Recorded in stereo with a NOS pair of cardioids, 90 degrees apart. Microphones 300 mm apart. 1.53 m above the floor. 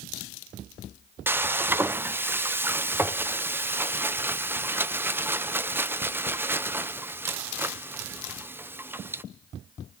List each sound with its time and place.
1.3 s frying: 5° right, 0.7 m